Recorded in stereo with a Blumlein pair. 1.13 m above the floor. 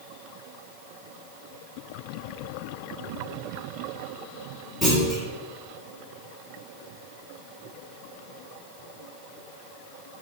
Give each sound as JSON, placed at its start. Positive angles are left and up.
{"t": 4.8, "sound": "a clunk", "azimuth_deg": 10, "distance_m": 1.8}